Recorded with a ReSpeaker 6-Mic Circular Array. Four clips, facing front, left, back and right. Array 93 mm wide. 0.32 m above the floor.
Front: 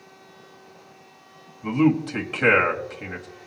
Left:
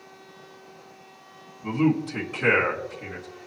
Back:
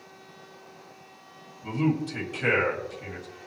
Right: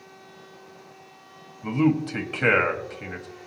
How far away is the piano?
No piano in this recording.